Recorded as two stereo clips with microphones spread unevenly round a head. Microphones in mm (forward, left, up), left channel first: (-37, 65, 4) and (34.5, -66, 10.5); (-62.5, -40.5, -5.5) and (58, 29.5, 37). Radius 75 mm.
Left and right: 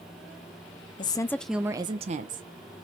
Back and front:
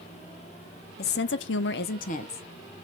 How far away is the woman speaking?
About 0.6 m.